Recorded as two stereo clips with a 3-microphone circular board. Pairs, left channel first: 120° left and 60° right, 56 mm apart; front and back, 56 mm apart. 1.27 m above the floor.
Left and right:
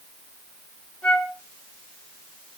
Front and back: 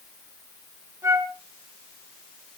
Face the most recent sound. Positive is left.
turn(degrees=-165)